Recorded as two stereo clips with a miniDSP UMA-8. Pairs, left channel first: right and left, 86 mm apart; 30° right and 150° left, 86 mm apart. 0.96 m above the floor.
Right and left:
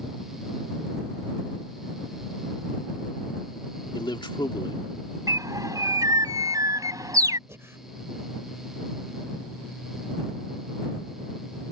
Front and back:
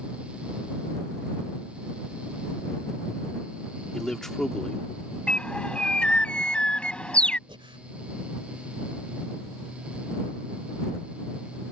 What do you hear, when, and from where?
3.9 s a man speaking: 115° right
5.3 s a bird: 45° left
7.5 s breathing: 150° left